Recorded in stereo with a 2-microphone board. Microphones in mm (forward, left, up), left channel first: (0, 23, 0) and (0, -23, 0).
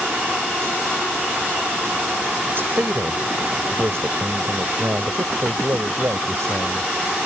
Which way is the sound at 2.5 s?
55° right (ahead or behind).